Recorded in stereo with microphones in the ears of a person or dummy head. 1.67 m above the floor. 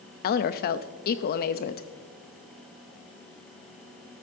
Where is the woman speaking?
50° left (ahead or behind), 0.6 m.